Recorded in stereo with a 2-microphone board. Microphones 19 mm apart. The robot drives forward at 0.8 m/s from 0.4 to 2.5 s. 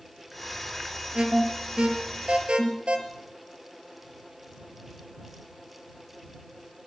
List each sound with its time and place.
1.1 s an alarm: 60° right (ahead or behind), 3 m